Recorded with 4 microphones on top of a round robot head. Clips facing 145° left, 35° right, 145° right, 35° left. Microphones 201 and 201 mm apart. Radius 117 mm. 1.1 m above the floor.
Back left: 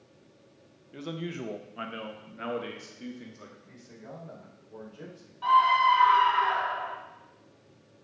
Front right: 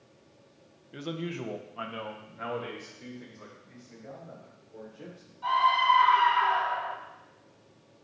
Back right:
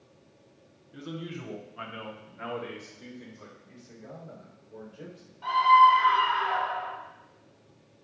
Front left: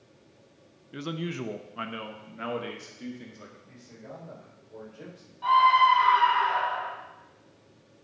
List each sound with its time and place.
0.9 s a man speaking: 50° left, 0.9 m; by 3.5 s 95° left, 2 m
3.6 s a man speaking: 130° left, 4.5 m
5.4 s a scream: 125° left, 5 m